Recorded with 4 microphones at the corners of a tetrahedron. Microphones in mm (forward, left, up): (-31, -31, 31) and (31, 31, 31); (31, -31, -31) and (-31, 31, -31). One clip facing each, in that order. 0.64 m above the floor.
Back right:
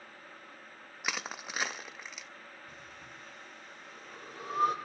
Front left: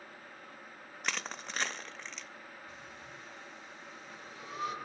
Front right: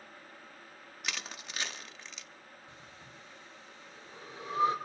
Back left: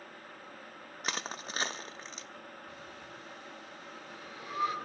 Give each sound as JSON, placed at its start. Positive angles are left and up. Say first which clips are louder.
{"t": 1.0, "sound": "crushing", "louder": "back right 1 dB, back left 4 dB", "azimuth_deg": 150, "distance_m": 0.5}
{"t": 2.7, "sound": "breathing", "louder": "front left 1 dB, back left 5 dB", "azimuth_deg": -105, "distance_m": 1.9}